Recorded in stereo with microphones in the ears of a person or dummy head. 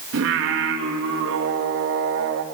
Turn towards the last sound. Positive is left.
turn(degrees=-70)  # may be behind; listen again after turning